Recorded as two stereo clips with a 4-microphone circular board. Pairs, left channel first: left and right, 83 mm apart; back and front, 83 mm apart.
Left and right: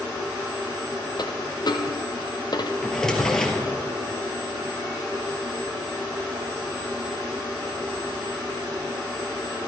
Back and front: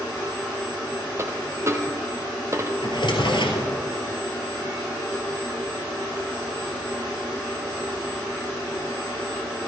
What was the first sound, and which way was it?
A dropped coin, 55° left.